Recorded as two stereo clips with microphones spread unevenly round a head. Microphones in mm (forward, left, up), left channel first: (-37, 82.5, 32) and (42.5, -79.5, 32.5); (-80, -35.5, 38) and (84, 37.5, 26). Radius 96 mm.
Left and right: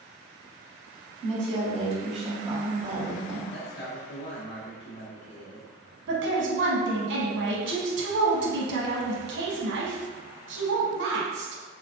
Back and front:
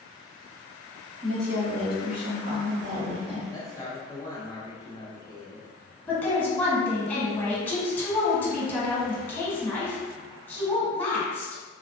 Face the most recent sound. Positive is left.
turn(degrees=-75)